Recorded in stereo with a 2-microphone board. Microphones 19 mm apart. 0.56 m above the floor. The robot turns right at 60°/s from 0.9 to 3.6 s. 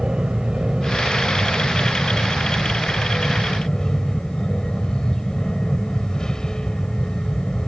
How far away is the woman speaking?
No woman speaking in this recording.